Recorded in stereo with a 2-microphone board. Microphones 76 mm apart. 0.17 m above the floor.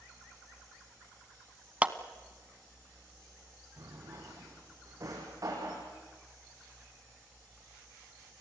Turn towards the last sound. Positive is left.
turn(degrees=-45)  # may be behind; listen again after turning